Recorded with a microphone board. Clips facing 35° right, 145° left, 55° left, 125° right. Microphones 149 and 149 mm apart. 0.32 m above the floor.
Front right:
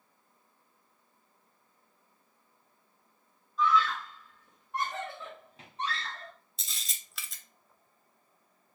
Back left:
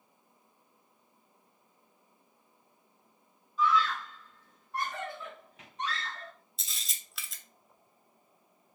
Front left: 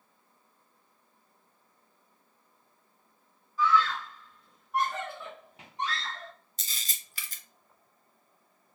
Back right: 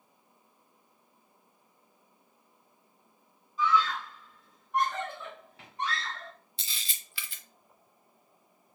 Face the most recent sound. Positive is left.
turn(degrees=55)